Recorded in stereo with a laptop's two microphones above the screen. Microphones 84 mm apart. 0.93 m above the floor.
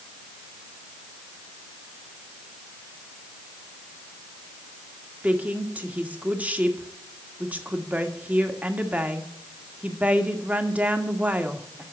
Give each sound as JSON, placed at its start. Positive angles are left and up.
{"t": 5.2, "sound": "a woman speaking", "side_deg": -20, "distance_m": 1.5}